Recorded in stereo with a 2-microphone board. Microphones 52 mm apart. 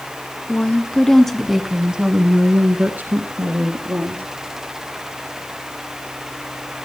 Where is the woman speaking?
30° left (ahead or behind), 1.7 m; by 4.2 s 55° right (ahead or behind), 2.5 m.